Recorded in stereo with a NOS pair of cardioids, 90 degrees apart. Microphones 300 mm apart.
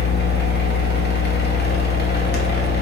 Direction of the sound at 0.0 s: 35° left.